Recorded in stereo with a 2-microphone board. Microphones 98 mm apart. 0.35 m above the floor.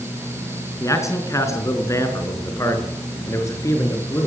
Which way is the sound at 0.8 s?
30° left (ahead or behind).